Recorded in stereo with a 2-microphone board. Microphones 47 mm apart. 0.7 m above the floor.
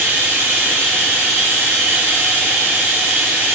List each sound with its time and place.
0.0 s running water: 60° right (ahead or behind), 1.1 m